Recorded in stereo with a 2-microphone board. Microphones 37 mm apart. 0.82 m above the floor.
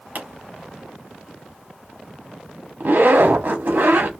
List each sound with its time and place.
0.1 s a pop: 60° right (ahead or behind), 1.4 m
2.8 s a zipper: 70° right (ahead or behind), 1.2 m